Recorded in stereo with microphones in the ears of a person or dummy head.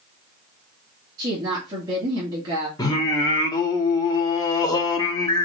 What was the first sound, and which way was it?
A woman speaking, 25° right (ahead or behind).